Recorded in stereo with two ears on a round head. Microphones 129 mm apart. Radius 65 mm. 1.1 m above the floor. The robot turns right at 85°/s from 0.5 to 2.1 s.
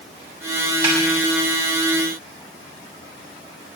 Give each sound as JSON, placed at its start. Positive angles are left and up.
{"t": 0.8, "sound": "a snare drum", "side_deg": -35, "distance_m": 5.0}